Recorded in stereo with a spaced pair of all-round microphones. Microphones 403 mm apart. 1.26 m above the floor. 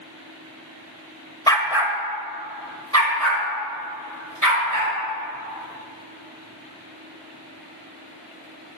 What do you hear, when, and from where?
1.5 s a dog barking: 10° left (ahead or behind), 1.1 m; by 4.9 s 55° right (ahead or behind), 5 m